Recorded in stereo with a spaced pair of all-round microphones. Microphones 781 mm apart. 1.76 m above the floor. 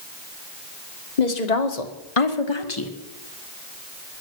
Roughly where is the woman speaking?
Left.